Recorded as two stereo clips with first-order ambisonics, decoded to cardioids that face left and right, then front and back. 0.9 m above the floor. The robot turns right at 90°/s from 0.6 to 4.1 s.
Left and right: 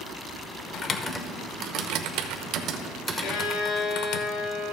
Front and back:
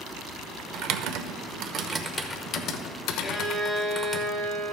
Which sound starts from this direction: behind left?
Typing on a keyboard, at 0.7 s.